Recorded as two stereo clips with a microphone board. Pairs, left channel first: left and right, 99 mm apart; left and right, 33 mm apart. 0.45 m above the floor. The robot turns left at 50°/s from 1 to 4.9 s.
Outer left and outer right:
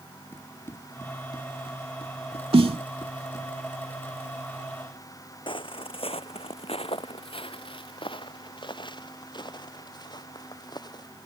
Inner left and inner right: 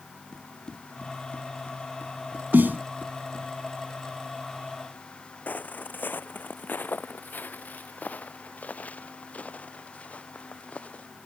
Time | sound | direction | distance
0.3 | running footsteps | 20° left (ahead or behind) | ?
2.5 | a snare drum | 75° right (ahead or behind) | ?
5.5 | footsteps | 55° left (ahead or behind) | ?